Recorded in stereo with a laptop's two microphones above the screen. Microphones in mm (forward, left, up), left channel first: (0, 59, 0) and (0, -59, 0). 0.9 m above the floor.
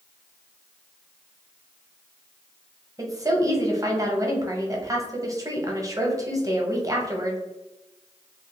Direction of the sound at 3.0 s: 30° right (ahead or behind).